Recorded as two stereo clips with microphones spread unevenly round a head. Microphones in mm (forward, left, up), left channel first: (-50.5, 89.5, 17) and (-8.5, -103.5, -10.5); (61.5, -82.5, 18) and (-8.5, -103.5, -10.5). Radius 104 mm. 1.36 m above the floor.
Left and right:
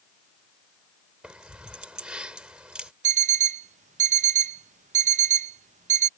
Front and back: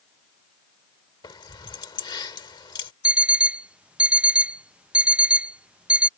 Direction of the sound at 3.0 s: 55° right.